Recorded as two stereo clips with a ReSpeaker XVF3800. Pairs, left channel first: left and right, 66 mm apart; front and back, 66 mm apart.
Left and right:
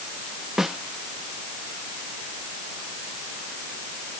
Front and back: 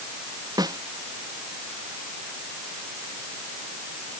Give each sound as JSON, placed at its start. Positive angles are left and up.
{"t": 0.6, "sound": "a snare drum", "azimuth_deg": -175}